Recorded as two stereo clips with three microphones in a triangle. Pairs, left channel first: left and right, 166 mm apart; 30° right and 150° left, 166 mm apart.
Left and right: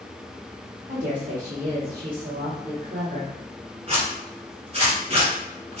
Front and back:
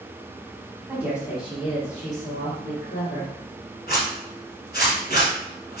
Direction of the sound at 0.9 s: 115° right.